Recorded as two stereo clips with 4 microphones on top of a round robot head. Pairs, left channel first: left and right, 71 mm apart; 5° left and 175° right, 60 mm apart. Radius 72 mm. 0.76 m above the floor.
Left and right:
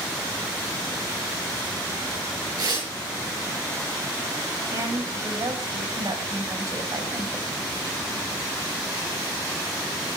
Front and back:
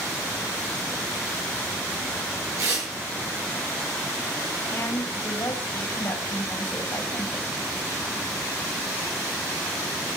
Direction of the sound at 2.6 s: 130° right.